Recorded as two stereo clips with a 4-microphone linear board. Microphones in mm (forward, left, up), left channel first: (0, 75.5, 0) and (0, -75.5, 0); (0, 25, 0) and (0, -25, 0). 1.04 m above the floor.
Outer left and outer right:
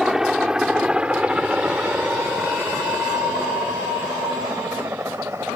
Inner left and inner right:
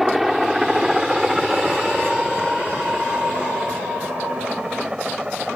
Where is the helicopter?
5° right (ahead or behind); by 5.6 s 15° right (ahead or behind).